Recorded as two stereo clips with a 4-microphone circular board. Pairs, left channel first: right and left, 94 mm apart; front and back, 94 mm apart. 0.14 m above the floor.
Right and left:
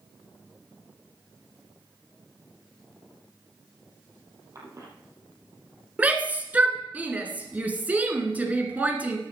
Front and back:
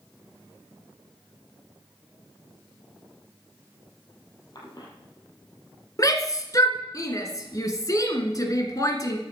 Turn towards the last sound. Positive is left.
turn(degrees=25)